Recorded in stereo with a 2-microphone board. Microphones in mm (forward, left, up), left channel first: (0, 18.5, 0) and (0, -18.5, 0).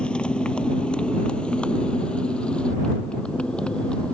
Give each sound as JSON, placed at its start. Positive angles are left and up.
{"t": 0.0, "sound": "a motorcycle", "side_deg": 25}